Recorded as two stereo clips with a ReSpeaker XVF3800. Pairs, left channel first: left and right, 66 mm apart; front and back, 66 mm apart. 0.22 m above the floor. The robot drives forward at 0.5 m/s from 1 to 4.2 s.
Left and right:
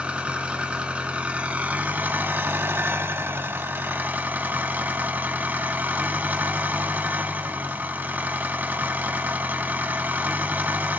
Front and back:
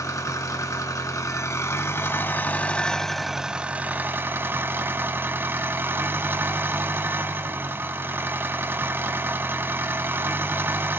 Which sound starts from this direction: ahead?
An engine running, at 0.0 s.